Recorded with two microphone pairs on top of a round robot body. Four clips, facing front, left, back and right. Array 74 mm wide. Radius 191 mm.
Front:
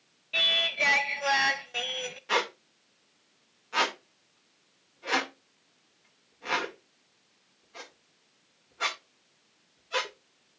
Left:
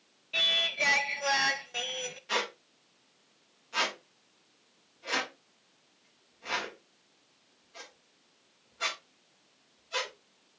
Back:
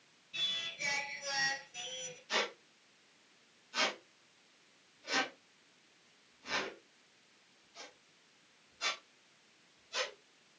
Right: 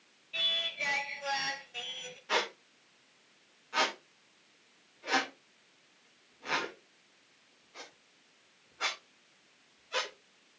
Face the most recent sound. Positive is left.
turn(degrees=-20)